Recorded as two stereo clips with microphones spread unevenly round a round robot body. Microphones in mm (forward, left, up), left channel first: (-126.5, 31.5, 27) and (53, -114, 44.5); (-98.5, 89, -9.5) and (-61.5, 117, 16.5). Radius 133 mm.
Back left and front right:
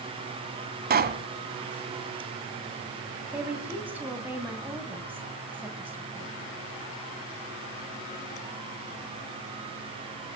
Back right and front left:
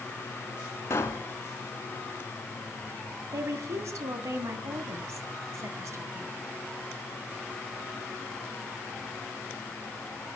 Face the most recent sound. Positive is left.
turn(degrees=45)